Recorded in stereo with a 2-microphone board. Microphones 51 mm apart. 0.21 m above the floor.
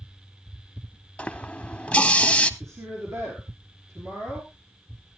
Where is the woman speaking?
65° right (ahead or behind), 4 m.